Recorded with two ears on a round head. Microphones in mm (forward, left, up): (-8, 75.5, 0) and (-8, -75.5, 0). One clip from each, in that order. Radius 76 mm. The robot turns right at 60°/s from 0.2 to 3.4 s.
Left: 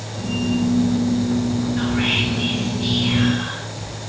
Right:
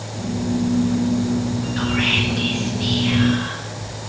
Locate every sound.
1.8 s whispering: 50° right (ahead or behind), 0.7 m; by 4.0 s 5° left (ahead or behind), 0.7 m